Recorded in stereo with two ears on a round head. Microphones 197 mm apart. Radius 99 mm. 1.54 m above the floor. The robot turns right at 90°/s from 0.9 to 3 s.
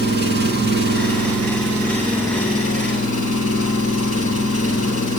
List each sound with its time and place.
0.0 s an engine running: 125° right, 9.5 m; by 5.2 s 65° left, 9.5 m